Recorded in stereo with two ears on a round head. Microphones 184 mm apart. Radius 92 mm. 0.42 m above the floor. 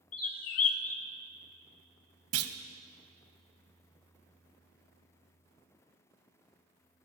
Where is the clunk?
80° right, 0.7 m.